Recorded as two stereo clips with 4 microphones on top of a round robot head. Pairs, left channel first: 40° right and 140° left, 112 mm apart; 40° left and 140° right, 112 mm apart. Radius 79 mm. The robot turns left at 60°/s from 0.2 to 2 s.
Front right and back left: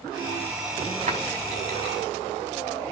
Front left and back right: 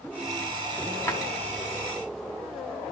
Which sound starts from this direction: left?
A drawer, at 1.1 s.